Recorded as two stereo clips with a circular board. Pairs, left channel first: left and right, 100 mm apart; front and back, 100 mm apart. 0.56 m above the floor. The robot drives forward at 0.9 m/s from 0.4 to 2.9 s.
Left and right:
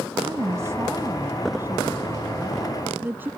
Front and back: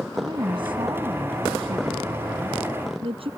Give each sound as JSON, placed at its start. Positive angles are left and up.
{"t": 0.1, "sound": "a woman speaking", "azimuth_deg": -150}